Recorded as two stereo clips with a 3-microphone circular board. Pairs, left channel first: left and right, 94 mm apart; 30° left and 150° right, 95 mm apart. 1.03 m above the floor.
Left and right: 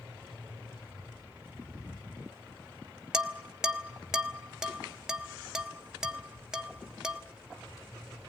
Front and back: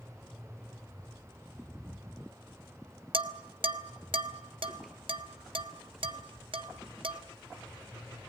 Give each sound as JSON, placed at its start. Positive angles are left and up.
{"t": 3.1, "sound": "dishes clattering", "azimuth_deg": -170, "distance_m": 1.3}